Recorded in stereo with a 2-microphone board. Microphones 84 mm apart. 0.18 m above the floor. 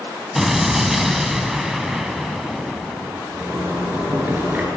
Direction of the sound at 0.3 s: 5° right (ahead or behind).